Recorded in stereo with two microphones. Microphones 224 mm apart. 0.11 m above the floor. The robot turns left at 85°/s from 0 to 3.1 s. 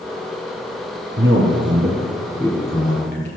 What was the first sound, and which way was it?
A man speaking, 85° right.